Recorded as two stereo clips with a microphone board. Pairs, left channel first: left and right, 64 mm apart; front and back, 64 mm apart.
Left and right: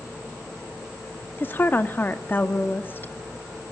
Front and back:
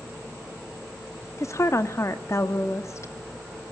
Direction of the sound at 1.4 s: 35° left.